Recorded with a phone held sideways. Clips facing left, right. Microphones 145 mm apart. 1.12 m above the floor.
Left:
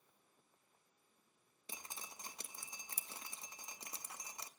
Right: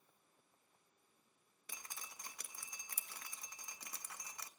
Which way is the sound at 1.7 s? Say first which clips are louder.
Left 2 dB; 25° left (ahead or behind).